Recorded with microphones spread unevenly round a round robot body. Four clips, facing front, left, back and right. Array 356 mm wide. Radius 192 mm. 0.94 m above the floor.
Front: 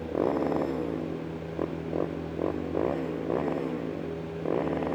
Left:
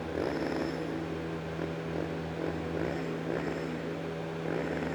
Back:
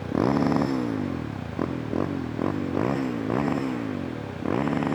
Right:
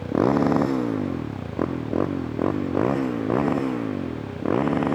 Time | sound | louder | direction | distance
0.0 | a motorcycle | right 12 dB, back 4 dB | 120° right | ?